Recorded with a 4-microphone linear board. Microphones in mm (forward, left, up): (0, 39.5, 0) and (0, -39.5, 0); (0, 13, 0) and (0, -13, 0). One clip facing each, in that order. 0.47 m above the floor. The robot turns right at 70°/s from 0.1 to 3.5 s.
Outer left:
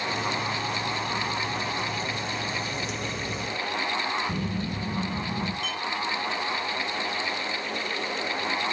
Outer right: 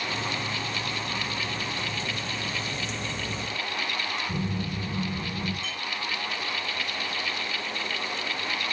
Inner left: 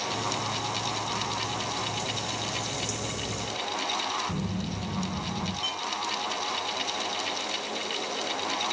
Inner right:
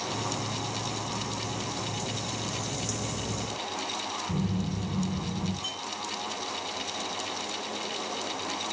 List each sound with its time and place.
4.3 s a phone buzzing: 40° left (ahead or behind), 2.5 m
5.6 s a clink: 60° left (ahead or behind), 4 m